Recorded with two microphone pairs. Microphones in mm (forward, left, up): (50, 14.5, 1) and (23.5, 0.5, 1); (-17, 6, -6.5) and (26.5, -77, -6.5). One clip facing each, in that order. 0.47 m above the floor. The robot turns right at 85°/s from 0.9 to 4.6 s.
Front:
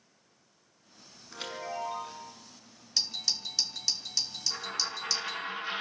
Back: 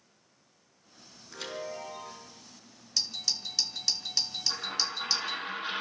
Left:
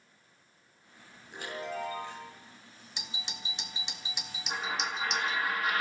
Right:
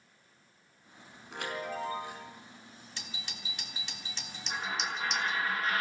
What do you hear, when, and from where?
1.3 s a chime: 55° right, 4.5 m; by 2.3 s 35° left, 4.5 m
3.0 s a doorbell: 70° left, 1.2 m; by 5.5 s 150° right, 1.2 m
4.5 s a dropped coin: 170° right, 10 m; by 5.8 s 160° right, 10 m